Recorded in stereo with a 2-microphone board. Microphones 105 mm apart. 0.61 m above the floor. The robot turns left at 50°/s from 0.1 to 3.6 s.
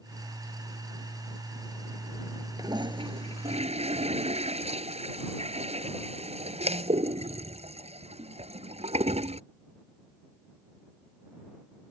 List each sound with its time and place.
2.6 s a toilet flushing: 35° right (ahead or behind); by 9.4 s 85° right